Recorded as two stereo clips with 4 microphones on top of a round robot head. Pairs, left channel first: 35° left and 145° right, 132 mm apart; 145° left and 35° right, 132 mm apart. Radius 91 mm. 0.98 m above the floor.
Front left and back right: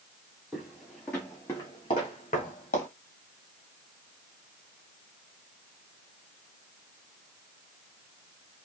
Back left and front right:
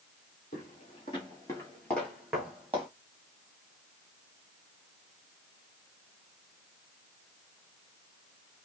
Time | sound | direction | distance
0.5 | footsteps | 135° left | 1.2 m